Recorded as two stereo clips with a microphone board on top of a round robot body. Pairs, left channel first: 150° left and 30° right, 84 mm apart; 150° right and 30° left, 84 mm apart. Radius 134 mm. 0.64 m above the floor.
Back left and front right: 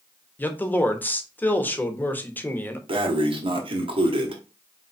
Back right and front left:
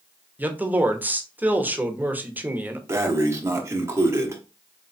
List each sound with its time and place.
0.4 s a man speaking: 90° left, 1.2 m
2.9 s breathing: 30° right, 1.1 m